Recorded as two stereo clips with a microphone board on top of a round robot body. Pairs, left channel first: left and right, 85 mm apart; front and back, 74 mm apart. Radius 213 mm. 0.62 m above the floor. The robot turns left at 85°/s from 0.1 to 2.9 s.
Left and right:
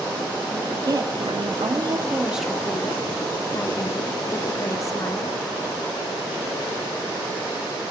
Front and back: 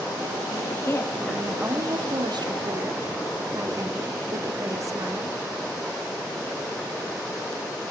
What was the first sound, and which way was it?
A woman speaking, 15° right.